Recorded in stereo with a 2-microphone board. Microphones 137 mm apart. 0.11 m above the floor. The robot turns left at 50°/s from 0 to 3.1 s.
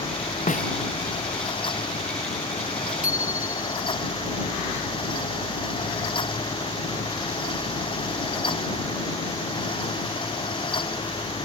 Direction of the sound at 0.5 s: 70° left (ahead or behind).